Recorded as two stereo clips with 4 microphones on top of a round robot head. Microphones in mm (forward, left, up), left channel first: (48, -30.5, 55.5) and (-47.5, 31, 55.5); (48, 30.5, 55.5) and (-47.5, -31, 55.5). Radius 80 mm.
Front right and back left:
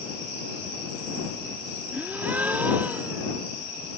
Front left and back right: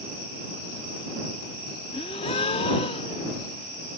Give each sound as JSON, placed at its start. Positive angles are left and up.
{"t": 1.9, "sound": "a gasp", "azimuth_deg": 70}